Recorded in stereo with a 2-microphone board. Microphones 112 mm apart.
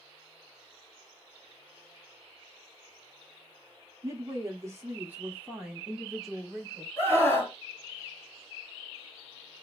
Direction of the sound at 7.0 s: 20° left (ahead or behind).